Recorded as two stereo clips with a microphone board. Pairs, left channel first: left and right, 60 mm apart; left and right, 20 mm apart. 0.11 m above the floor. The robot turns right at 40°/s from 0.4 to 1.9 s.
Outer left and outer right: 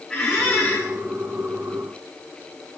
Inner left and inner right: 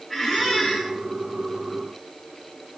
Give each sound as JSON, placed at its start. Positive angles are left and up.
{"t": 0.1, "sound": "a squeak", "side_deg": 10, "distance_m": 4.5}